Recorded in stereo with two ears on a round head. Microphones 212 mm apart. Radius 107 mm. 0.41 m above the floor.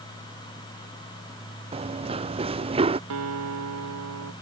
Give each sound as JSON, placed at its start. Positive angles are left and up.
{"t": 1.7, "sound": "running footsteps", "side_deg": -25}
{"t": 3.1, "sound": "a guitar", "side_deg": -75}